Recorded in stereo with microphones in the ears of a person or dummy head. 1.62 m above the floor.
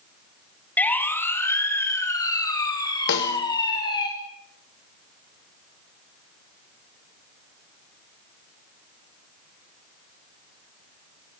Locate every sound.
0.8 s a siren: 10° left (ahead or behind), 3 m; by 4.1 s 25° left (ahead or behind), 5 m
3.1 s a snare drum: 65° left (ahead or behind), 3 m